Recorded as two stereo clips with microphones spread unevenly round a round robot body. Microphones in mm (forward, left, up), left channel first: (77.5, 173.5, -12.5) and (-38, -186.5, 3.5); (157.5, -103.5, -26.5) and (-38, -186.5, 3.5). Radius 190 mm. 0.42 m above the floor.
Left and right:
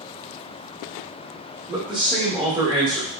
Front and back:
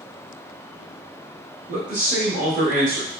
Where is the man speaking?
Straight behind, 1.1 m.